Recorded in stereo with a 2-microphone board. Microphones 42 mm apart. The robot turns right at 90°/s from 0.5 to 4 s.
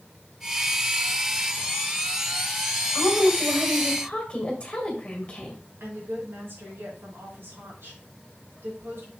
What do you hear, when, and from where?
2.9 s a woman speaking: 75° right, 2 m; by 5.6 s 20° left, 2 m
5.8 s a woman speaking: 65° right (ahead or behind), 4 m